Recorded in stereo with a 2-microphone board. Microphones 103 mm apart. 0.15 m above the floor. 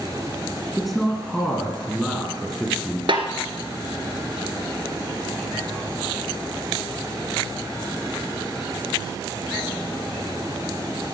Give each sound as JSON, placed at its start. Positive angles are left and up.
{"t": 0.8, "sound": "a man speaking", "side_deg": 0, "distance_m": 2.0}
{"t": 3.1, "sound": "a snare drum", "side_deg": -60, "distance_m": 1.5}